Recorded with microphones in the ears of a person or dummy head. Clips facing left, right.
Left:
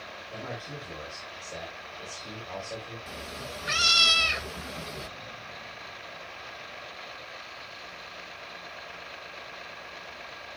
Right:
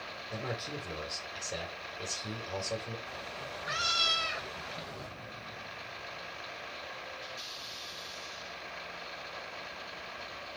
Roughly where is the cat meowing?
Left.